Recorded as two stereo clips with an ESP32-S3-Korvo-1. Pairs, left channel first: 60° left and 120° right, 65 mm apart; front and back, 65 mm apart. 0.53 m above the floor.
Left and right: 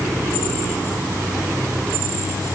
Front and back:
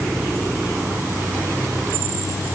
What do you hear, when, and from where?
Only background noise.